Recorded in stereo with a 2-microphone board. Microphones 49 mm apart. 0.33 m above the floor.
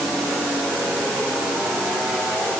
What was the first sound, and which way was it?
Only background noise.